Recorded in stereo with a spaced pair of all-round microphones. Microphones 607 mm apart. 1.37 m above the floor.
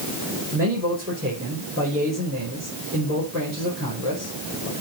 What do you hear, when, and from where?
0.5 s a man speaking: 20° right (ahead or behind), 5 m